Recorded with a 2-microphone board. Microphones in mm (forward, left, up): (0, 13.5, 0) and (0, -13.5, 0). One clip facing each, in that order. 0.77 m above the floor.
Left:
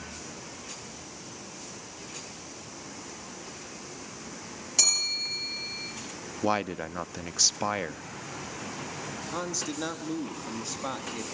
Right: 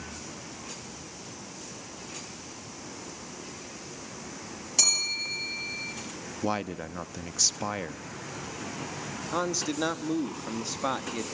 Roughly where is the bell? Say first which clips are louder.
Even; centre.